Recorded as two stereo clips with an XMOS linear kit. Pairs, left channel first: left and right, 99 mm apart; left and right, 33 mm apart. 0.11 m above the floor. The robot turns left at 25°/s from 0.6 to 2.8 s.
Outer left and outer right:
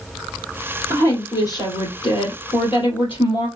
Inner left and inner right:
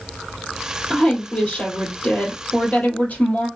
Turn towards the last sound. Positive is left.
turn(degrees=100)